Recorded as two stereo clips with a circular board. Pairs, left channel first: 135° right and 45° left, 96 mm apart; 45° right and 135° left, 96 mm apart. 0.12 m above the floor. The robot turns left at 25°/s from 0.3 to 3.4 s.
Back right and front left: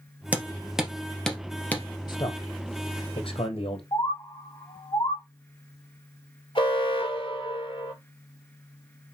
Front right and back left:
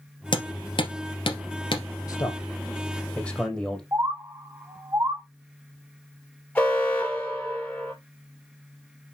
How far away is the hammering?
About 2 m.